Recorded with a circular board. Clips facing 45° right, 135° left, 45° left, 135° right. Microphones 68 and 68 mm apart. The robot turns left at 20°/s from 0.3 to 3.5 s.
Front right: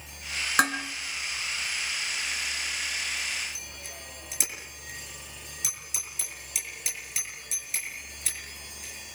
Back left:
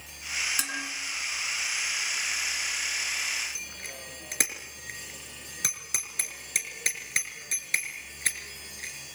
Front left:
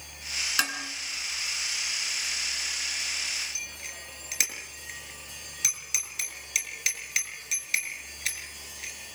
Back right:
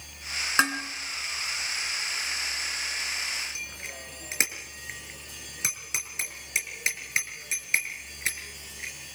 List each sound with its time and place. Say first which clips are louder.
0.6 s dishes clattering: front right 10 dB, back right 6 dB; 75° right, 3 m; by 0.8 s 80° right, 3 m
3.5 s a bicycle bell: back left 2 dB, back right 2 dB; 165° left, 5 m